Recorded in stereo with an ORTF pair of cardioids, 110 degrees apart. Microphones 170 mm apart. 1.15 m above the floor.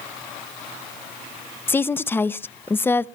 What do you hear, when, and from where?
1.7 s a woman speaking: 15° left, 0.6 m